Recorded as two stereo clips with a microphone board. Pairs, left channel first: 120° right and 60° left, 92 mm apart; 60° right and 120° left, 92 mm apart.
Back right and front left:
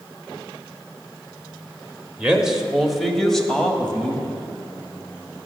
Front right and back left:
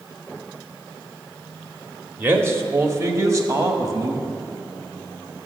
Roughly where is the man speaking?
Behind left.